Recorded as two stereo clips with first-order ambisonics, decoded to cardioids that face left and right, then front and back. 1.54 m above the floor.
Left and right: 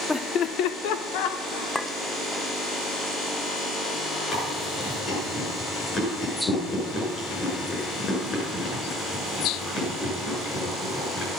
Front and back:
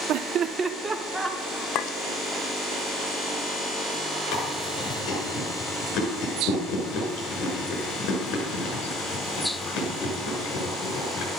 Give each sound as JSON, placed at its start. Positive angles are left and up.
{"t": 0.1, "sound": "laughter", "azimuth_deg": 175, "distance_m": 0.6}
{"t": 1.8, "sound": "a clink", "azimuth_deg": 5, "distance_m": 0.6}
{"t": 4.3, "sound": "chewing", "azimuth_deg": 30, "distance_m": 6.5}